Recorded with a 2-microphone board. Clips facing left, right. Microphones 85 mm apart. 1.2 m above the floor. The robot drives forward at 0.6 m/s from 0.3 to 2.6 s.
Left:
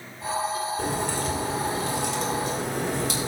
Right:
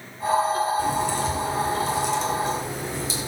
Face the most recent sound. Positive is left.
turn(degrees=65)  # may be behind; listen again after turning